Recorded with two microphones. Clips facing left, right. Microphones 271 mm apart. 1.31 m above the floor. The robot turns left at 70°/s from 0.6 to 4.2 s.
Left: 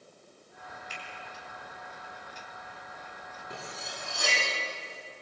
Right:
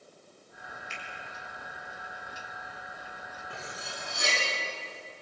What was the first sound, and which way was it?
A finger snap, 45° left (ahead or behind).